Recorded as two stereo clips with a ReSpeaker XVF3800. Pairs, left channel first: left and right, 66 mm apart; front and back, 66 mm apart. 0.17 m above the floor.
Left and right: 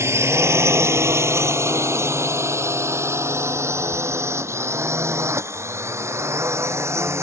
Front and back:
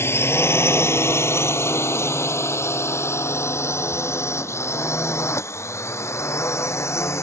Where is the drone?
50° right; by 7.2 s 45° right.